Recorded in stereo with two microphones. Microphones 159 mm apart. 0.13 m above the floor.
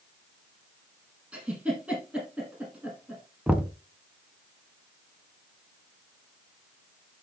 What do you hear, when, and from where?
1.3 s a giggle: 5° right (ahead or behind), 6 m
3.5 s knocking: 5° right (ahead or behind), 0.9 m